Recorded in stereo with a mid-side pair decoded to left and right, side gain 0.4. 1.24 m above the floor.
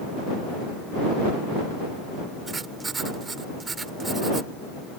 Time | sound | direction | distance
2.5 | writing | 35° right | ?